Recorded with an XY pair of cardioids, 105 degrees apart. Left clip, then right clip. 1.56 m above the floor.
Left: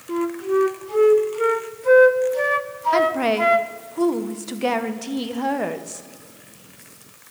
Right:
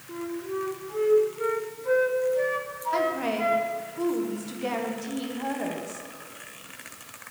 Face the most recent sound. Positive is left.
turn(degrees=60)